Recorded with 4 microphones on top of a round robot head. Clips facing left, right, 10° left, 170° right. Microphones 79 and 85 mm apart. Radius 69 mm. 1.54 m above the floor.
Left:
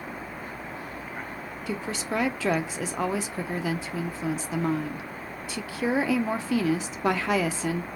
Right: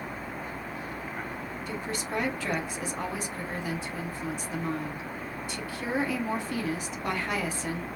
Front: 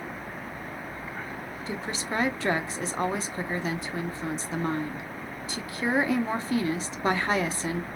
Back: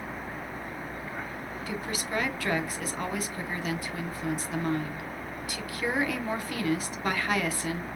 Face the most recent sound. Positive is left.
turn(degrees=75)